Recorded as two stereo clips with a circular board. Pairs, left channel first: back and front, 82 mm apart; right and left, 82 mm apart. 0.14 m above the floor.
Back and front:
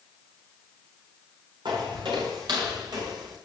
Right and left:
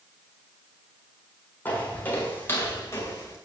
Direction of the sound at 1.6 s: 20° right.